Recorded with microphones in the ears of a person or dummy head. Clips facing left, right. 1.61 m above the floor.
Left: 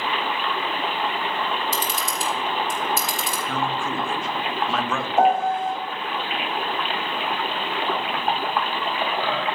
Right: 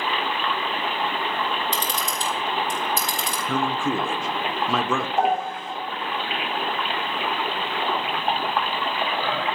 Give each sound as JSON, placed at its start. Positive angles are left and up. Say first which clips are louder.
{"t": 1.7, "sound": "a camera shutter", "louder": "left 1 dB", "side_deg": 15, "distance_m": 1.6}
{"t": 3.5, "sound": "a man speaking", "louder": "right 4 dB", "side_deg": -75, "distance_m": 0.9}
{"t": 5.2, "sound": "a piano", "louder": "left 8 dB", "side_deg": 45, "distance_m": 2.5}